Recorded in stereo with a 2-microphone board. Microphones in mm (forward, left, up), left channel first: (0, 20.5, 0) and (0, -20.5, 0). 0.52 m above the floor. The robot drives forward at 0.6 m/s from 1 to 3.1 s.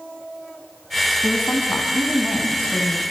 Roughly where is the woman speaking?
Left.